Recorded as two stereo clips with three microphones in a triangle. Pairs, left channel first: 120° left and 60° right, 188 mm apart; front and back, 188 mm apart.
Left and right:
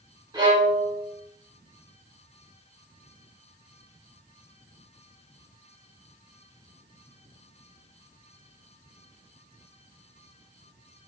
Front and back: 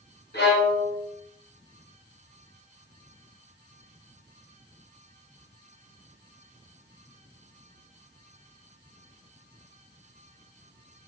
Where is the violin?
5° left, 1.2 m.